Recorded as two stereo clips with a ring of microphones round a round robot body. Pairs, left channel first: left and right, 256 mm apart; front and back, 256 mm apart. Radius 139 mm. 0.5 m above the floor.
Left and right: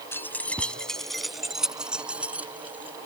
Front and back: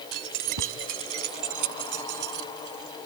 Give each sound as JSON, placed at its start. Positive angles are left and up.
{"t": 0.1, "sound": "keys jangling", "azimuth_deg": 170}